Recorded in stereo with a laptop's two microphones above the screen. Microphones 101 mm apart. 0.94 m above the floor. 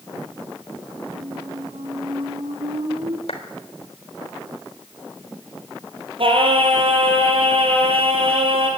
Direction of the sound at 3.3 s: 85° left.